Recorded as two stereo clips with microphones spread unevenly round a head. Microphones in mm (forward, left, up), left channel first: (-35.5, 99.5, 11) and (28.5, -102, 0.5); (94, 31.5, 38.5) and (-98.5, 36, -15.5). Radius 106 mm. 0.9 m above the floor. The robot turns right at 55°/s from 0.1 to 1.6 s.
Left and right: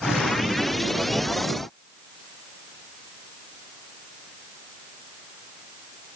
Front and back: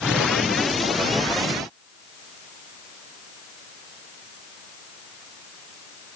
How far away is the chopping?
I don't hear chopping.